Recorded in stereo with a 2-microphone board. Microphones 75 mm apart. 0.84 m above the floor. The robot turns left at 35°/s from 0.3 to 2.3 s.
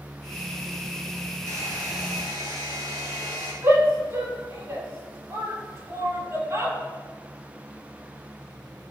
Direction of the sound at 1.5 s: 40° right (ahead or behind).